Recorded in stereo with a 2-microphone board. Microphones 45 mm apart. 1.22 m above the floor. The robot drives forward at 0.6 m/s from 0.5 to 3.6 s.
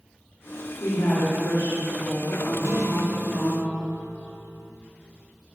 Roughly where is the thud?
No thud in this recording.